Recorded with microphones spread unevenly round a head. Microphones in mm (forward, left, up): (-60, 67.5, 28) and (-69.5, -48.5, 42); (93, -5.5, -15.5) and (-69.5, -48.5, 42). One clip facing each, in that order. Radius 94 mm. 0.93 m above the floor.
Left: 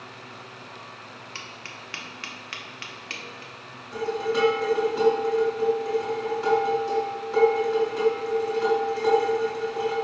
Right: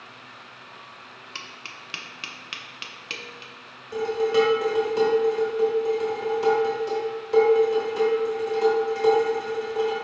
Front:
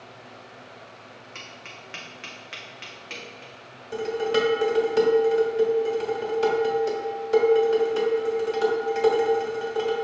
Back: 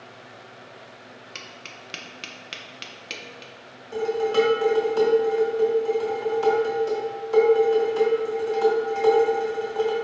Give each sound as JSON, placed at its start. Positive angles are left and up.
{"t": 1.4, "sound": "tapping", "azimuth_deg": -150, "distance_m": 0.6}
{"t": 3.9, "sound": "dishes clattering", "azimuth_deg": -55, "distance_m": 1.8}